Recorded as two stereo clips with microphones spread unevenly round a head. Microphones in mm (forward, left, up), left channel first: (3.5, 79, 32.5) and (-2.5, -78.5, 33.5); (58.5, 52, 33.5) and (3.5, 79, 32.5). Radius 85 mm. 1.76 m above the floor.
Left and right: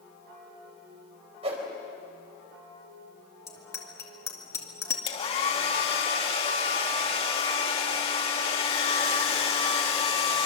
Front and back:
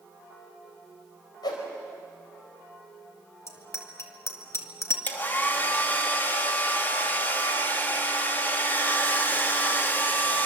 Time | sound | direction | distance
1.4 | a whoosh | 35° right | 4.5 m
3.5 | a bicycle bell | 15° left | 2.5 m
5.1 | a hair dryer | 35° left | 2.5 m